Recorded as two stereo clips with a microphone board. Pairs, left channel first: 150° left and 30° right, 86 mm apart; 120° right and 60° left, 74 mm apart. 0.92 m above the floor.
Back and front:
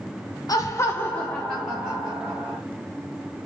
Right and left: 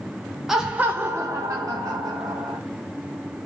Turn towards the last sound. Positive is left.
turn(degrees=40)